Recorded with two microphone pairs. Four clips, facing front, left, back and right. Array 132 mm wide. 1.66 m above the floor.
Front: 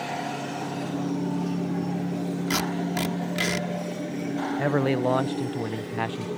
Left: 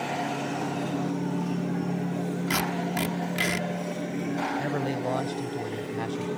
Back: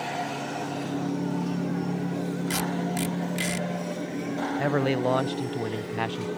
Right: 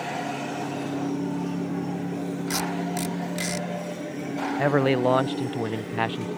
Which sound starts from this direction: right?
A man speaking, at 4.6 s.